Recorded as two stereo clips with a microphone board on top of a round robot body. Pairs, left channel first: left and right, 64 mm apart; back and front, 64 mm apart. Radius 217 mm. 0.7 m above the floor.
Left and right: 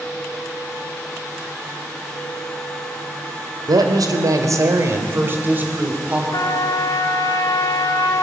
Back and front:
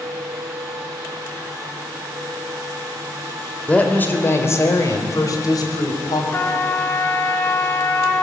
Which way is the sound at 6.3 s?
120° left.